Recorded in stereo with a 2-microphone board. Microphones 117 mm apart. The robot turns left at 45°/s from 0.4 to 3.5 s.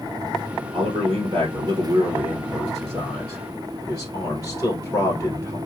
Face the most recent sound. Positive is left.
turn(degrees=165)